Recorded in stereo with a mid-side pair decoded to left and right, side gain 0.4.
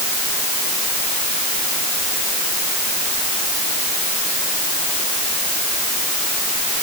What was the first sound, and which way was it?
Only background noise.